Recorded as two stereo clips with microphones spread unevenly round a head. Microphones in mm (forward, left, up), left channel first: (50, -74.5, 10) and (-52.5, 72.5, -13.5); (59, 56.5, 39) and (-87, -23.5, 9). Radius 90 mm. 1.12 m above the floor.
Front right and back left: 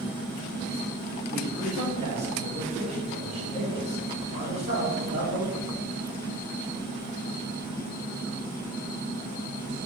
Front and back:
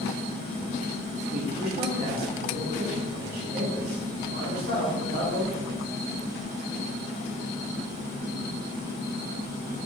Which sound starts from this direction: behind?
A man speaking, at 1.3 s.